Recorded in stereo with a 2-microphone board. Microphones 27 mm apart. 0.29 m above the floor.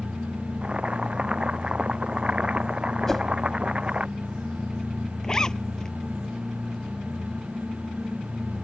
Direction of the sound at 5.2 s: 20° left (ahead or behind).